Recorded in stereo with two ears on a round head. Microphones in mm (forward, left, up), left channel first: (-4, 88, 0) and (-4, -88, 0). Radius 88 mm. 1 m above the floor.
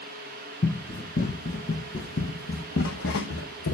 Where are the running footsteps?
40° left (ahead or behind), 2.5 m; by 3.8 s 65° left (ahead or behind), 2 m.